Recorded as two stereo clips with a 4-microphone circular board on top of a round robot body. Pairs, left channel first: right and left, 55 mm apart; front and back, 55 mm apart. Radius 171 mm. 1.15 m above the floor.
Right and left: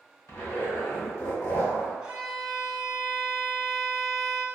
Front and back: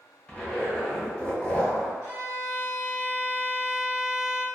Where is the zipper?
70° right, 1.4 m.